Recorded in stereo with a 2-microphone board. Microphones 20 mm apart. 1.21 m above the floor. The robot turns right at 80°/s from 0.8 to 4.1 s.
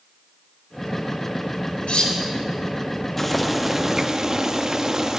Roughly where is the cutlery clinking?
Left.